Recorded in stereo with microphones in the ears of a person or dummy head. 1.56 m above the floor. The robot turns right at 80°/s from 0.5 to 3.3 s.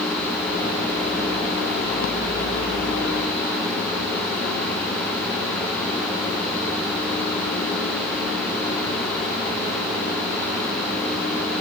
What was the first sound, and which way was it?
Only background noise.